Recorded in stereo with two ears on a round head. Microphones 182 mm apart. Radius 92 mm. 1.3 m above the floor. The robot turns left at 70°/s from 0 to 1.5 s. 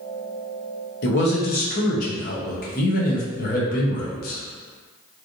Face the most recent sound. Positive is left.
turn(degrees=55)